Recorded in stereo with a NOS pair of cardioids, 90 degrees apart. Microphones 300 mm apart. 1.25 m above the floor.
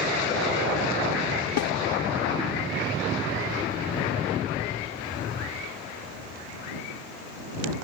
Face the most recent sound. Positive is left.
turn(degrees=65)